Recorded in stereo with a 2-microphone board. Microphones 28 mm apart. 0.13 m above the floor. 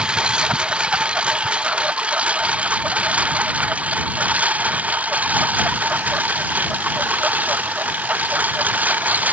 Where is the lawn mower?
40° right (ahead or behind); by 9.3 s 85° right.